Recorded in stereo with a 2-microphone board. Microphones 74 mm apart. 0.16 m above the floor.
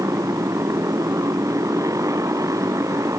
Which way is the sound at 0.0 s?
45° right (ahead or behind).